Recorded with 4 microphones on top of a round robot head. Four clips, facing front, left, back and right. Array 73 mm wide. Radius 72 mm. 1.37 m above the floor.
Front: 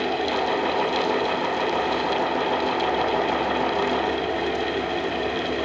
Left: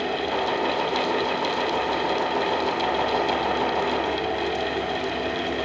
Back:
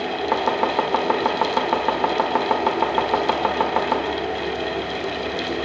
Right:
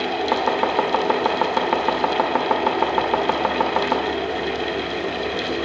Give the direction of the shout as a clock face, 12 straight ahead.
No shout in this recording.